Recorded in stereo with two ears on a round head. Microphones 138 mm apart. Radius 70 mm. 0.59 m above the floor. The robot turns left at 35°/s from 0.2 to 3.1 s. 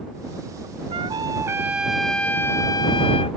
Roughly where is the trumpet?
Behind right.